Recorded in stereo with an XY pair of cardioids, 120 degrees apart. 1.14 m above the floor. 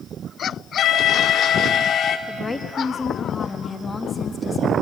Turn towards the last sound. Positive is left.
turn(degrees=20)